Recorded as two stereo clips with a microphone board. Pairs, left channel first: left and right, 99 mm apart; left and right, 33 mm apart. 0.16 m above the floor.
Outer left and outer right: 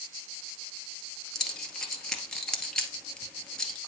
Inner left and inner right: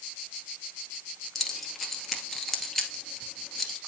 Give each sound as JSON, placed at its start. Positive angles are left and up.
{"t": 1.4, "sound": "keys jangling", "side_deg": 5, "distance_m": 1.8}